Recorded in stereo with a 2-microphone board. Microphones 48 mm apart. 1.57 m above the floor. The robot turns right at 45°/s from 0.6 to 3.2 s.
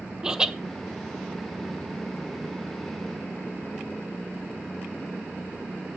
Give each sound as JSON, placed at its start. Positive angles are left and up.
{"t": 0.2, "sound": "laughter", "side_deg": -15, "distance_m": 1.0}